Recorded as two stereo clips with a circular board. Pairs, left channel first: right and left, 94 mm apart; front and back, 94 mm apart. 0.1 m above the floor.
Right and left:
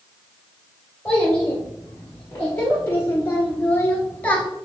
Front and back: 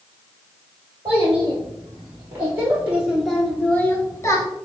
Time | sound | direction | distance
1.1 | a child speaking | 165° right | 1.4 m